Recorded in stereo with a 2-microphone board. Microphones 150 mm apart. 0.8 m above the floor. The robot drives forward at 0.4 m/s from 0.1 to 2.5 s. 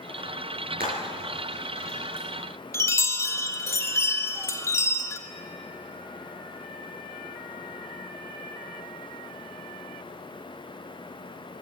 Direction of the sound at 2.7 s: 15° left (ahead or behind).